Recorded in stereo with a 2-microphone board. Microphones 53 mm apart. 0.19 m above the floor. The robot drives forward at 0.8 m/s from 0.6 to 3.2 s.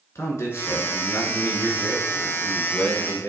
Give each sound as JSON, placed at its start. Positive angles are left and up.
{"t": 0.1, "sound": "a man speaking", "side_deg": 60, "distance_m": 2.5}